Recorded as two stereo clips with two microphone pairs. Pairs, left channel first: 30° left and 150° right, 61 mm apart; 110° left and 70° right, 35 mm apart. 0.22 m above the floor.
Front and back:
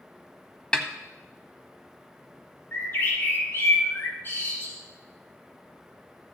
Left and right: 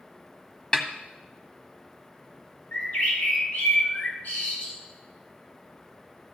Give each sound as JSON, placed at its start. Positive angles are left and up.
{"t": 0.7, "sound": "a snare drum", "azimuth_deg": 80, "distance_m": 1.2}
{"t": 2.7, "sound": "a bird", "azimuth_deg": 80, "distance_m": 4.0}